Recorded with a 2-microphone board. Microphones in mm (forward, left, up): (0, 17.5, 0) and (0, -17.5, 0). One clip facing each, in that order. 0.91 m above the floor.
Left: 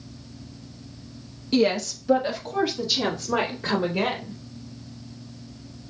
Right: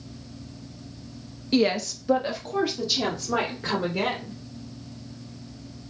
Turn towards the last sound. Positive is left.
turn(degrees=-5)  # may be behind; listen again after turning